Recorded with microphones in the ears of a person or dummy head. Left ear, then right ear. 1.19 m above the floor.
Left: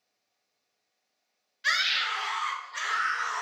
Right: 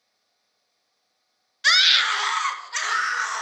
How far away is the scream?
About 0.5 m.